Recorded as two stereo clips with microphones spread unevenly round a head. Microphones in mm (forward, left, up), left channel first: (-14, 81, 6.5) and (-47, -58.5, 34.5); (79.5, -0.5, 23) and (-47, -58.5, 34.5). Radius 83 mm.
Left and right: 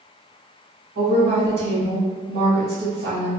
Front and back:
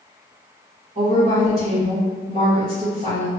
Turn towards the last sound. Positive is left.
turn(degrees=-120)